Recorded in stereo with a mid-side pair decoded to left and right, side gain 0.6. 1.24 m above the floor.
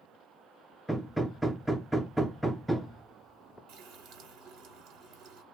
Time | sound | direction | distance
0.9 | hammering | straight ahead | 0.5 m
3.7 | a running tap | 70° right | 1.0 m